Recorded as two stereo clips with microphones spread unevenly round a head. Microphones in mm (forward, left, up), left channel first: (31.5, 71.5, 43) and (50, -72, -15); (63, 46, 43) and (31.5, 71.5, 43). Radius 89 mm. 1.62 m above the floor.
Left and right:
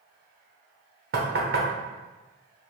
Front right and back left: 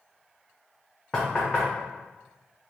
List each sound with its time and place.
1.1 s knocking: 130° right, 0.7 m